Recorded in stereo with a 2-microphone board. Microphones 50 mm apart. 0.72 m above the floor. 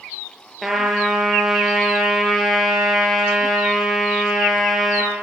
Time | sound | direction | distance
0.6 | a trumpet | 5° right (ahead or behind) | 5.5 m